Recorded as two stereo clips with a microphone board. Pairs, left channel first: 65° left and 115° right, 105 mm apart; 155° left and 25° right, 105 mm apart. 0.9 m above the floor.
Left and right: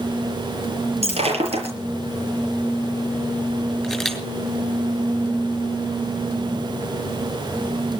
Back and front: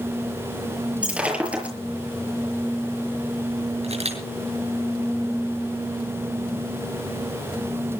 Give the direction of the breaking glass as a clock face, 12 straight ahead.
3 o'clock.